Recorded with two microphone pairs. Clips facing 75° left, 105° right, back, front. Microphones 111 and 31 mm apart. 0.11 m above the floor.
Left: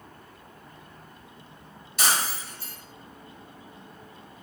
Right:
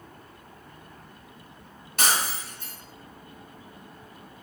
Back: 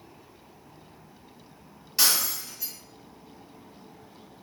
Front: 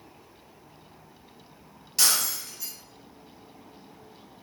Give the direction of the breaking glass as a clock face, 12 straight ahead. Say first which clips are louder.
Even, even; 3 o'clock.